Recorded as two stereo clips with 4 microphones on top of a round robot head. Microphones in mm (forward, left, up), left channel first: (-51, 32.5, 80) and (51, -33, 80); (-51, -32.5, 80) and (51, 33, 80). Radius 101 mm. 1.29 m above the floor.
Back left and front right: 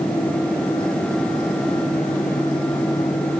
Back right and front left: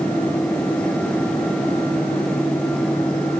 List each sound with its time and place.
Only background noise.